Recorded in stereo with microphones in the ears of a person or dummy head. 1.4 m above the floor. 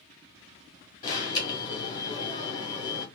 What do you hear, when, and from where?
1.0 s an alarm: 20° left (ahead or behind), 2 m